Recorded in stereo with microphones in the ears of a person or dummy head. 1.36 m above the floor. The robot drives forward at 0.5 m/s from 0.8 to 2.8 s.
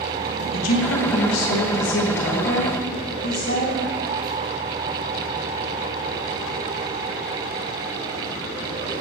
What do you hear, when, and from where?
0.5 s a woman speaking: 85° left, 1.4 m; by 3.8 s 55° left (ahead or behind), 1.8 m